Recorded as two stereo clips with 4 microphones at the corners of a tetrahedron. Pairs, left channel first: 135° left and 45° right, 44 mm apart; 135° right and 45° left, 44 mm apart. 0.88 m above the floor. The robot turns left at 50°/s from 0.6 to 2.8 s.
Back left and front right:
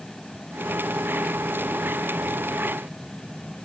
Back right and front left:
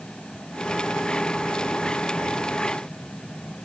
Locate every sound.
Only background noise.